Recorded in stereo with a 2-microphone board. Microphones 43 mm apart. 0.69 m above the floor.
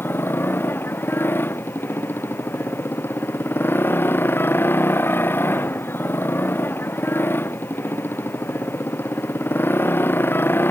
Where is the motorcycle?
55° left (ahead or behind).